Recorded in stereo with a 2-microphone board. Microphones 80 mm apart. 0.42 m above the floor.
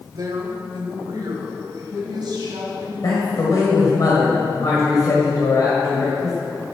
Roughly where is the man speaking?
Left.